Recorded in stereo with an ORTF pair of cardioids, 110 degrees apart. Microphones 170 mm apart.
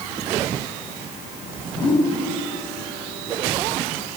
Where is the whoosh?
30° left, 3.5 m.